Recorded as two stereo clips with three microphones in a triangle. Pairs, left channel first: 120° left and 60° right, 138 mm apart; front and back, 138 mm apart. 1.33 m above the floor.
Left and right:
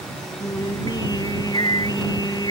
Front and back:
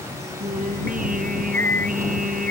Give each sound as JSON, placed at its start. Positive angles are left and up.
{"t": 0.4, "sound": "singing", "azimuth_deg": 180}